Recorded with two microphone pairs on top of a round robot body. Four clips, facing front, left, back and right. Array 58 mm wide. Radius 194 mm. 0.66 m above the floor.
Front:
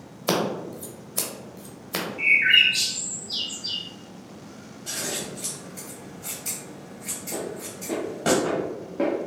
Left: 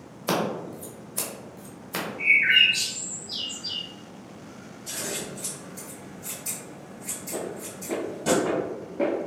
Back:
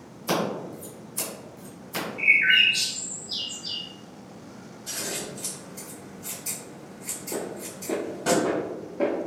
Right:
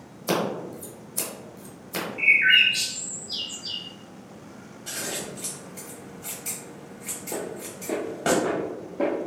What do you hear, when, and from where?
0.3 s scissors: 15° left, 1.0 m
2.2 s a bird: 95° right, 0.5 m
4.9 s scissors: 65° right, 1.5 m
7.3 s footsteps: 105° right, 1.3 m; by 9.3 s 35° left, 0.8 m